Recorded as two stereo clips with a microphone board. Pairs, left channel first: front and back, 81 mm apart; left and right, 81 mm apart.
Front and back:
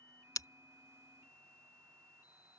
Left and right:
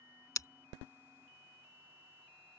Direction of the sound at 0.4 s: 45° left.